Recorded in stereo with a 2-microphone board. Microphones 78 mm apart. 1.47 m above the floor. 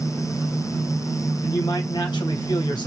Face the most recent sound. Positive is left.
turn(degrees=65)  # may be behind; listen again after turning